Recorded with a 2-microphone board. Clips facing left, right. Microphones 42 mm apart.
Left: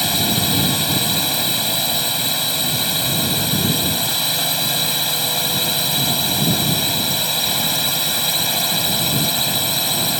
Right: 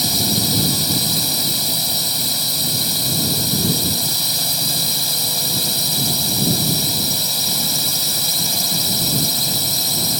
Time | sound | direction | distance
0.0 | a drone | 40° left (ahead or behind) | ?